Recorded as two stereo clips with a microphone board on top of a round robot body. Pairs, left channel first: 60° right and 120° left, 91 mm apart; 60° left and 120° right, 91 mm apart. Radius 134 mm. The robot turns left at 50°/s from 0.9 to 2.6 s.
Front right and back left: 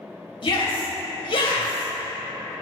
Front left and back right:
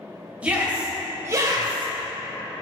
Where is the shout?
45° right, 3 m; by 1.9 s 95° right, 3 m.